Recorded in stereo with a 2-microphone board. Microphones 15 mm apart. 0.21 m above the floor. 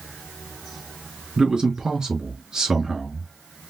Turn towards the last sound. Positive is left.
turn(degrees=-55)  # may be behind; listen again after turning